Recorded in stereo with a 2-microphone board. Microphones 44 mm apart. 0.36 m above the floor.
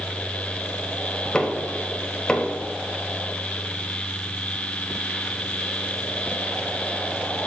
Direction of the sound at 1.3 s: 20° left (ahead or behind).